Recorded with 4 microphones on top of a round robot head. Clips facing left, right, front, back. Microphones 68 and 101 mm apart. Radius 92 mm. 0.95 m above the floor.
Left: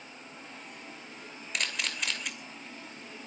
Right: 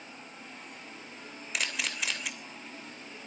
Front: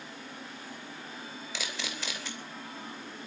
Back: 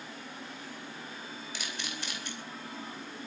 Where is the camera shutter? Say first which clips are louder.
Even, front 3 dB; straight ahead, 3 m.